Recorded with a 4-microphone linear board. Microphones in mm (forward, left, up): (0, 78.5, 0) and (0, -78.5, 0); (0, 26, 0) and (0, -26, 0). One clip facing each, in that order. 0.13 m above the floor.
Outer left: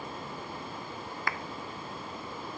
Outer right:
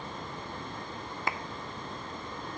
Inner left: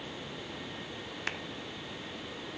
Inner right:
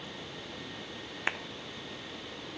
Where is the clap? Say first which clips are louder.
Outer right 2 dB, inner right 5 dB; 20° right (ahead or behind), 1.0 m.